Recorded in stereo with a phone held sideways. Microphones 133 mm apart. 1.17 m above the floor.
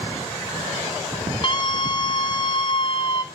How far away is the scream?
About 2.5 m.